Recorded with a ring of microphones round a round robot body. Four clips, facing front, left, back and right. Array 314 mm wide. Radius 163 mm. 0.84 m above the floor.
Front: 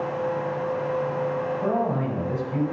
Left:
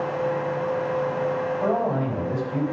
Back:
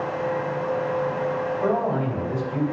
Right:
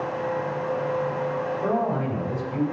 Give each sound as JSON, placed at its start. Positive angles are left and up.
{"t": 1.6, "sound": "a man speaking", "azimuth_deg": 70, "distance_m": 5.5}